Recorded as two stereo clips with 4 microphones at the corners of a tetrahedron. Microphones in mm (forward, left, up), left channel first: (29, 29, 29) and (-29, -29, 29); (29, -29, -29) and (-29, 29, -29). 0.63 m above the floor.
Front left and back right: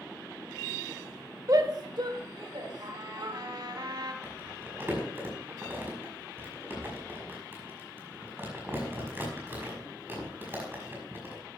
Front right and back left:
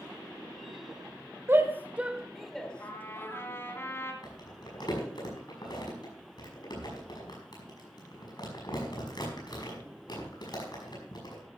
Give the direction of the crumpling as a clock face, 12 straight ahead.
2 o'clock.